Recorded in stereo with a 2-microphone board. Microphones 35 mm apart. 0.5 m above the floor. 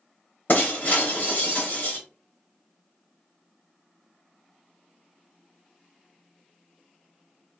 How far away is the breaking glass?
About 1.1 m.